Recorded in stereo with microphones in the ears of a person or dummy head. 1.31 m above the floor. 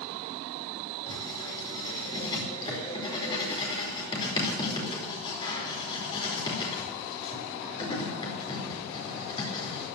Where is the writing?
30° left (ahead or behind), 4.5 m.